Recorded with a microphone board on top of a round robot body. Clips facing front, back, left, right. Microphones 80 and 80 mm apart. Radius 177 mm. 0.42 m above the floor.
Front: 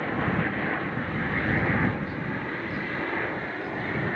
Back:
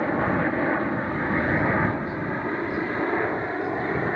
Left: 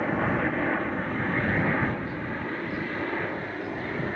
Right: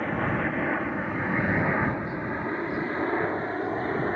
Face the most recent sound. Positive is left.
turn(degrees=-120)